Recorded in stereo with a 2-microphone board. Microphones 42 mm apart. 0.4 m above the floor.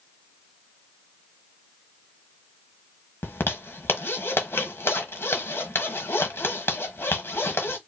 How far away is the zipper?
About 1.3 m.